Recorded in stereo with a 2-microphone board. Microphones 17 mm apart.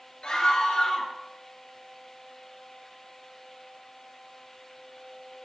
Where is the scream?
60° left (ahead or behind), 3 m.